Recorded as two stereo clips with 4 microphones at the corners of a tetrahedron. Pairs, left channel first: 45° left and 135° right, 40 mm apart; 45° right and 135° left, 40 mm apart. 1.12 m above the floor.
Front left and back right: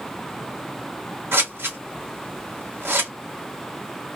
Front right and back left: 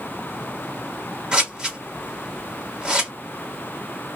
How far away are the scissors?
About 1.3 m.